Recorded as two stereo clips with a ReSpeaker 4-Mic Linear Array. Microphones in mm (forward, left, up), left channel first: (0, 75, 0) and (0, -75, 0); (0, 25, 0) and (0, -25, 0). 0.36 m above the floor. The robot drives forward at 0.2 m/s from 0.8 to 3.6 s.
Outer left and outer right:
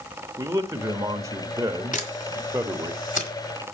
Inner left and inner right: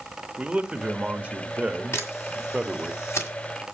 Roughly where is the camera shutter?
Left.